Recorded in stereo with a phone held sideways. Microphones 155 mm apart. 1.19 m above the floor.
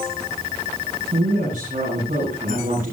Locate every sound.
1.1 s a woman speaking: 55° right (ahead or behind), 9.5 m